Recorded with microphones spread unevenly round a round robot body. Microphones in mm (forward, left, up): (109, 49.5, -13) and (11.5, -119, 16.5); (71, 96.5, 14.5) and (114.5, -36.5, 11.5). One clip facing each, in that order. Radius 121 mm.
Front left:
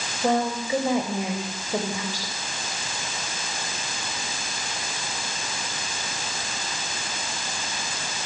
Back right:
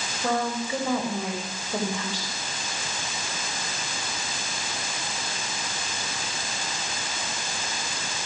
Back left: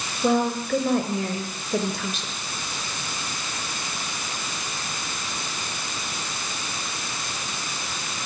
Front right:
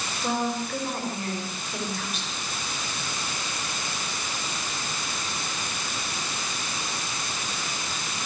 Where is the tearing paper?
I don't hear tearing paper.